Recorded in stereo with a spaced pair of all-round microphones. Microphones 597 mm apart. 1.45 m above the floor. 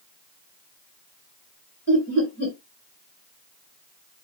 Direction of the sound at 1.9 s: 25° left (ahead or behind).